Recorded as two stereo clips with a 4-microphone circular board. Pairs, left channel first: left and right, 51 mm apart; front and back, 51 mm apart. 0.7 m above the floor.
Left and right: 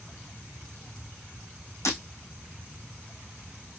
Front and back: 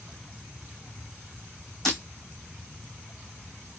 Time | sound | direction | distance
1.9 | breaking glass | 85° left | 2 m